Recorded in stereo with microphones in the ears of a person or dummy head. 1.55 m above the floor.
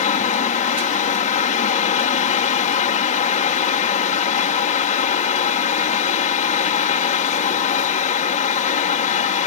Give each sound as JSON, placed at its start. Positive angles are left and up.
{"t": 0.0, "sound": "a fan", "side_deg": 40}